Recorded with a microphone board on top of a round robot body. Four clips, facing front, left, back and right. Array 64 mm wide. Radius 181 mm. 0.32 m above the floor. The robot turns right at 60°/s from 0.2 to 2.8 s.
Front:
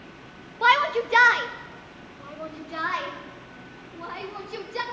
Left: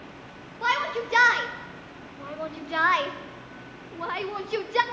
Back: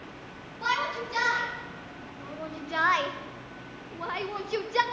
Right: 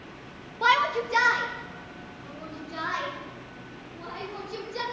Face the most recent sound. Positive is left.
turn(degrees=115)